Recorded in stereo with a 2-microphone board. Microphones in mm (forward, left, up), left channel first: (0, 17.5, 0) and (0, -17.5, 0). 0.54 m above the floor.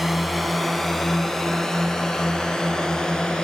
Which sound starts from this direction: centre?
A drone, at 0.0 s.